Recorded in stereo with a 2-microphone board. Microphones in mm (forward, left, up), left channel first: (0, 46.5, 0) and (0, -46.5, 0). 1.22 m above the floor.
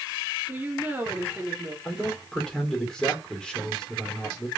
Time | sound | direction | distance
0.5 | a woman speaking | 20° right (ahead or behind) | 2.5 m
1.9 | a man speaking | 5° left (ahead or behind) | 3 m